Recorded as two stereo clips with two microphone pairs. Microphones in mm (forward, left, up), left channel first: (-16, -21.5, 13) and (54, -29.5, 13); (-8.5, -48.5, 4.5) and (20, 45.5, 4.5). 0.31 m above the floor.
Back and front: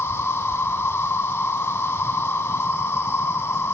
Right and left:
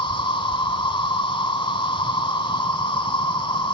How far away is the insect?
About 0.8 m.